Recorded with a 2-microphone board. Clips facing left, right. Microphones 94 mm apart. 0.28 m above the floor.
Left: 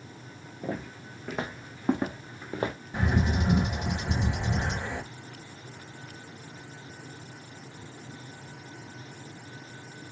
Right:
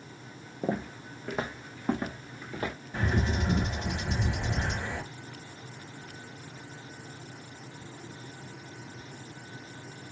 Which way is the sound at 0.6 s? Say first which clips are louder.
Right 3 dB; 30° right (ahead or behind).